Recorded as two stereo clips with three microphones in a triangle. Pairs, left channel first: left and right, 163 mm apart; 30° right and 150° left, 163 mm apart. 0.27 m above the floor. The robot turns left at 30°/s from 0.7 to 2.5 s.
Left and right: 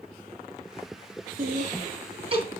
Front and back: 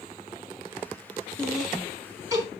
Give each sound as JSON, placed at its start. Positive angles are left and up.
{"t": 1.4, "sound": "laughter", "azimuth_deg": -115, "distance_m": 3.5}